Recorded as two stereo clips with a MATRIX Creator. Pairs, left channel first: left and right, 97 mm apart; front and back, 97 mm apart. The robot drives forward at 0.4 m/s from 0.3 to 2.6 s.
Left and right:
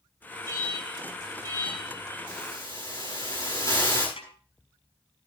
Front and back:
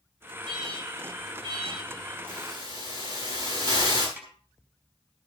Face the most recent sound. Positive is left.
turn(degrees=105)